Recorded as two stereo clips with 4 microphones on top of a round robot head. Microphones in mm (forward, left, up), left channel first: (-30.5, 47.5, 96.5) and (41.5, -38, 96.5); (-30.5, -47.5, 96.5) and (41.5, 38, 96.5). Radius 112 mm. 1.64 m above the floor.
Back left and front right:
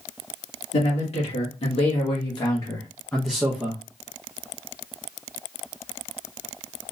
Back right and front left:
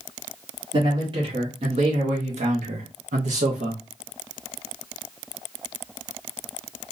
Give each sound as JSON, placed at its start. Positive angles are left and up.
{"t": 0.7, "sound": "a man speaking", "azimuth_deg": 100, "distance_m": 1.8}